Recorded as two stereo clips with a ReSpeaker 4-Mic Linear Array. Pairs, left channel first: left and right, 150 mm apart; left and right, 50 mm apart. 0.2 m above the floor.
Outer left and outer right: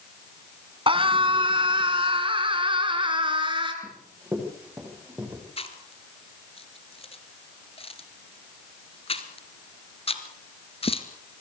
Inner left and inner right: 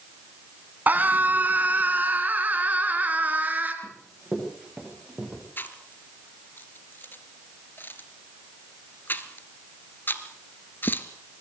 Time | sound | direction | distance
0.9 | a scream | 35° right (ahead or behind) | 2 m
3.8 | running footsteps | 10° right (ahead or behind) | 8.5 m
5.6 | chewing | 40° left (ahead or behind) | 1.5 m